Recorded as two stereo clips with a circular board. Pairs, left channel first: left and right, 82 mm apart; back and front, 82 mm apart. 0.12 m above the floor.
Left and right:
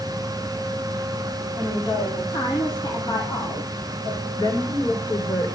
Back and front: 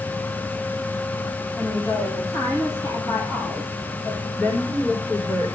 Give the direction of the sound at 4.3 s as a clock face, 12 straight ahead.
8 o'clock.